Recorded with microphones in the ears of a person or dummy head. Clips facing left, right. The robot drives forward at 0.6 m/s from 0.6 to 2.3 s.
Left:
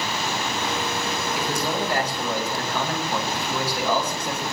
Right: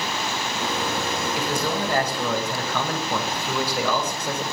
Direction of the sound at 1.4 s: 80° right.